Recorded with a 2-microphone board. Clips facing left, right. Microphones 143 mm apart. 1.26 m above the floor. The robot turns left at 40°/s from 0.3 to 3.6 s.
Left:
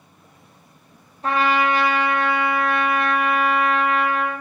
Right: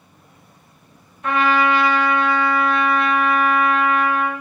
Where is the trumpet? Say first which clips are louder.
Right 2 dB; 140° left, 0.6 m; by 4.4 s 45° left, 0.6 m.